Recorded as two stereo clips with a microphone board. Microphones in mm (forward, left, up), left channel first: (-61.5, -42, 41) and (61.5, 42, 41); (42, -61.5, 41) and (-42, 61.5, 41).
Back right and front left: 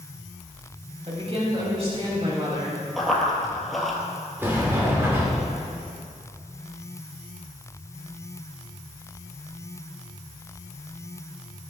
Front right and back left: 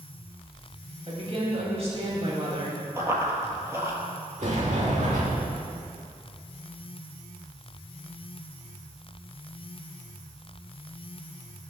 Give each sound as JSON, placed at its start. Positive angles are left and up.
{"t": 1.1, "sound": "a woman speaking", "azimuth_deg": 80, "distance_m": 3.0}
{"t": 3.0, "sound": "running footsteps", "azimuth_deg": 125, "distance_m": 1.7}
{"t": 4.4, "sound": "a sliding door", "azimuth_deg": 110, "distance_m": 2.5}